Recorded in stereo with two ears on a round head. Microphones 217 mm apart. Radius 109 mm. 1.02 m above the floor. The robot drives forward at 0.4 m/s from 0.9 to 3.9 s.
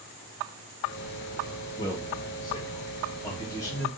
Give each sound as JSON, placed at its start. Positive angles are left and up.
{"t": 1.8, "sound": "a man speaking", "side_deg": 20, "distance_m": 1.7}